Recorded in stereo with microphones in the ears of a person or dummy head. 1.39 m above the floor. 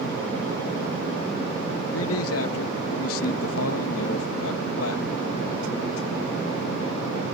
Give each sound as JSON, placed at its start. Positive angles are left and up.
{"t": 1.9, "sound": "a man speaking", "side_deg": 80}